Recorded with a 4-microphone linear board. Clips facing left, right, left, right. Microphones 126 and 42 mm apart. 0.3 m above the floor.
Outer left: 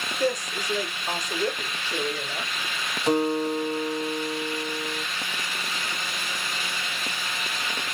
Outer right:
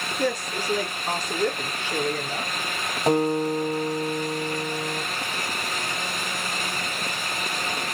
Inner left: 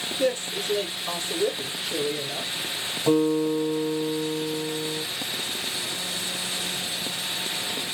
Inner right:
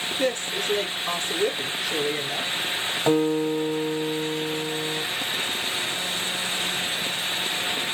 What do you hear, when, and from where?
0.2 s a woman speaking: 55° right (ahead or behind), 3.5 m
3.1 s a guitar: 45° right (ahead or behind), 1.9 m